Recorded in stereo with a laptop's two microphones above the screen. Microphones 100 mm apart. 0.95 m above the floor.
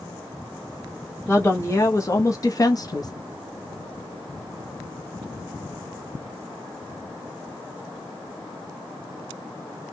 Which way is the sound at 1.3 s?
25° left (ahead or behind).